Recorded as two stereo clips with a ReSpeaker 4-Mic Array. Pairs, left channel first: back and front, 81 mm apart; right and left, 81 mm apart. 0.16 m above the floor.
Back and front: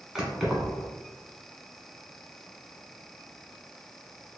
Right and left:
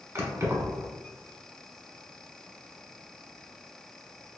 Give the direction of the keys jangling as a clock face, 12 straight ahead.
9 o'clock.